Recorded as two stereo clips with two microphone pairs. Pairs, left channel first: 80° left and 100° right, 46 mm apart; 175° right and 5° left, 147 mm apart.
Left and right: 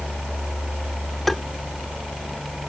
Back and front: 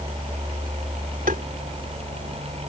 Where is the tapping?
Straight ahead.